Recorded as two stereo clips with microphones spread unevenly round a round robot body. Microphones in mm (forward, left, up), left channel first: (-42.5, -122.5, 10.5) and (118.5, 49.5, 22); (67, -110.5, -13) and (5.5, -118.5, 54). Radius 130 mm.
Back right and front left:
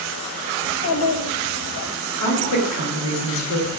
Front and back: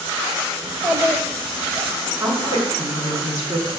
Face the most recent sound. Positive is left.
turn(degrees=-130)